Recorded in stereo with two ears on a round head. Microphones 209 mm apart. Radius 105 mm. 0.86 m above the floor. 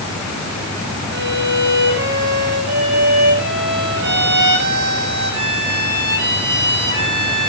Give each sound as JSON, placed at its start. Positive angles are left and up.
{"t": 1.1, "sound": "a violin", "side_deg": -50, "distance_m": 6.5}